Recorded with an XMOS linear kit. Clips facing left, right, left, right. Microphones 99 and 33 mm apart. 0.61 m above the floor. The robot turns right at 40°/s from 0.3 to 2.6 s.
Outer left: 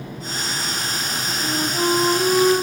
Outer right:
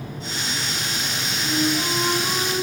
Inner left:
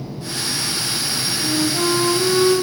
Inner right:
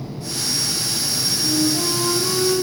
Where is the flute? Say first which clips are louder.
Outer left 1 dB, inner left 1 dB; 60° left, 2.5 m; by 2.5 s 105° left, 2.5 m.